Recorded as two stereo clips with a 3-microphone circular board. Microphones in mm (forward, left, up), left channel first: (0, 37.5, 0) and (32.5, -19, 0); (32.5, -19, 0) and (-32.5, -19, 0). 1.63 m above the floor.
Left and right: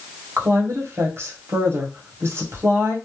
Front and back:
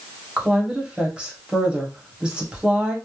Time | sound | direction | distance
0.4 | a woman speaking | 105° right | 1.0 m